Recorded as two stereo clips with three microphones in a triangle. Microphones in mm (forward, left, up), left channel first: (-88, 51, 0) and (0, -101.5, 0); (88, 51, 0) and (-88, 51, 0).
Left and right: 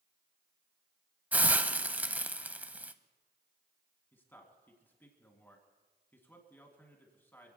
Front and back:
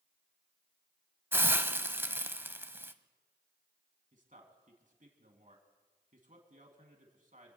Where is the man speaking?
165° right, 2.5 m.